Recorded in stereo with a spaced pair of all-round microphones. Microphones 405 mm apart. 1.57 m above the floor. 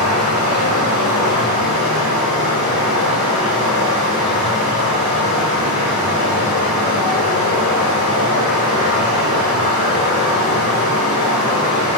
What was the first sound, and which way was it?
Running water, 60° left (ahead or behind).